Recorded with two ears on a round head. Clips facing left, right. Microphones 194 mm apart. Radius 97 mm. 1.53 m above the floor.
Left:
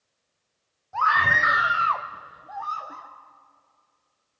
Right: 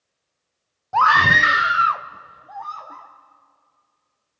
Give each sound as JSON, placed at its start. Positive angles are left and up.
{"t": 0.9, "sound": "a scream", "side_deg": -75, "distance_m": 0.6}